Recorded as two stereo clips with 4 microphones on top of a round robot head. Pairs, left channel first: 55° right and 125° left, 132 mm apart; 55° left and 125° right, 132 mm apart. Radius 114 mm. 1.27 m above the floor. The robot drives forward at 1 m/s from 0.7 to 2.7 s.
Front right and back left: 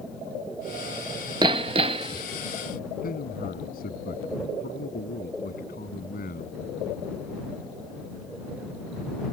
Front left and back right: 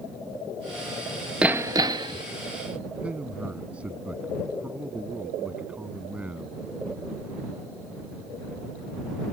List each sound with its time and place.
1.4 s hammering: 155° left; by 2.2 s 175° left
3.0 s a man speaking: 45° right